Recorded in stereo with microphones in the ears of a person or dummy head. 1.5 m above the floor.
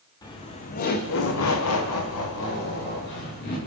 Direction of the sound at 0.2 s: 20° left (ahead or behind).